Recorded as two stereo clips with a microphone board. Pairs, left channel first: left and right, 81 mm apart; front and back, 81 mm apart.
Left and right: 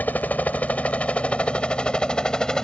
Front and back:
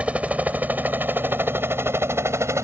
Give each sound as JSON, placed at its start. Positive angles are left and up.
{"t": 0.0, "sound": "a helicopter", "azimuth_deg": 125}